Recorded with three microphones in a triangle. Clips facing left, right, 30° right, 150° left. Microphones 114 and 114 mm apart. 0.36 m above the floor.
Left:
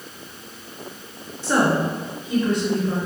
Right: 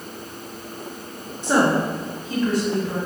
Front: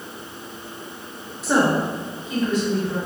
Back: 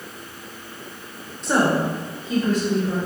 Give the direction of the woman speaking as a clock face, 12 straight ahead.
4 o'clock.